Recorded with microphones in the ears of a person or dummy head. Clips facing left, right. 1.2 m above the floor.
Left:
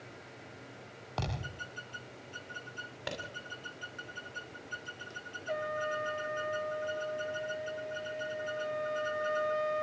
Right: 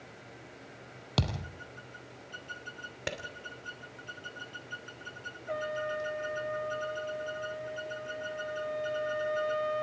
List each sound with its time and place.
1.2 s a thud: 50° right (ahead or behind), 3.5 m
3.1 s a clap: 35° right (ahead or behind), 2.5 m
5.5 s a trumpet: centre (ahead or behind), 2.5 m